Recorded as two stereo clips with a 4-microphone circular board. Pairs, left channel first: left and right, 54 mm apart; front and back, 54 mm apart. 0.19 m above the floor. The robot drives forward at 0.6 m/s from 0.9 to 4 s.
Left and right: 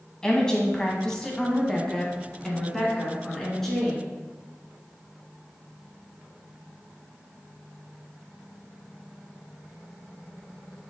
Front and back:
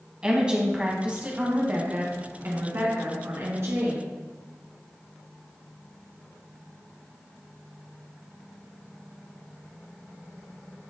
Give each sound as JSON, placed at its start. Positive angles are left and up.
{"t": 0.2, "sound": "a woman speaking", "azimuth_deg": 140, "distance_m": 1.4}